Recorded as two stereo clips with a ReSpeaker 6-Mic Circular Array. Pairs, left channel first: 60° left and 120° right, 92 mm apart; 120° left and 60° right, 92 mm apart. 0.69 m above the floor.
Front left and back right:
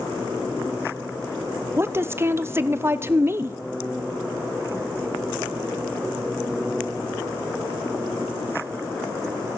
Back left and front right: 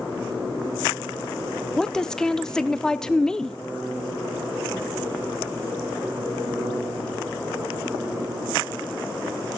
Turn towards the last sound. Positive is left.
turn(degrees=-160)